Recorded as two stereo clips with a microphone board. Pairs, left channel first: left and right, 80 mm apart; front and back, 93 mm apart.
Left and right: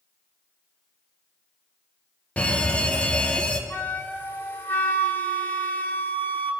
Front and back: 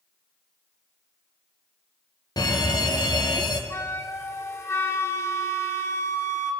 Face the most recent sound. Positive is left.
turn(degrees=40)